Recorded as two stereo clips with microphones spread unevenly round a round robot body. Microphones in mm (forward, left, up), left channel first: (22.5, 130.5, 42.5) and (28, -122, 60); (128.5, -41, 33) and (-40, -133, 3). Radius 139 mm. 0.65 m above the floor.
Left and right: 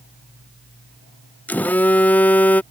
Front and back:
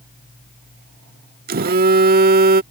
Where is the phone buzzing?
175° left.